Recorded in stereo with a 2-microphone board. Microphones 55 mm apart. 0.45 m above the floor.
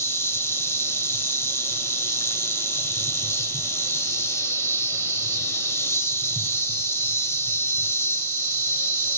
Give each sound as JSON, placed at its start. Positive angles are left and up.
{"t": 0.0, "sound": "an insect", "side_deg": 55, "distance_m": 1.7}